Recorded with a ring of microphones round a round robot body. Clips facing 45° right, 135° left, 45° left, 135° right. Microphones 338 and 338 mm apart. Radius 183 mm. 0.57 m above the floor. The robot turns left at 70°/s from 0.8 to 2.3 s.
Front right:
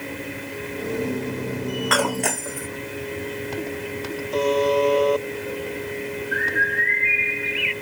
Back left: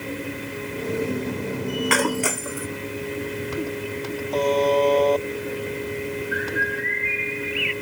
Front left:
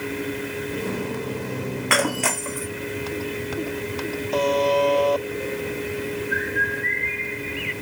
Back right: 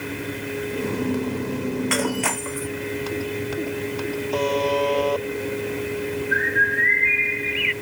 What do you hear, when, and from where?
1.9 s breaking glass: 75° left; by 2.7 s 50° left
4.3 s a buzzer: 30° left
6.3 s a bird: 110° right